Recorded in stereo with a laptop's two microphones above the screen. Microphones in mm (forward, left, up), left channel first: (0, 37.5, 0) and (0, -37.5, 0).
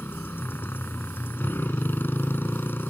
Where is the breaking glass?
No breaking glass in this recording.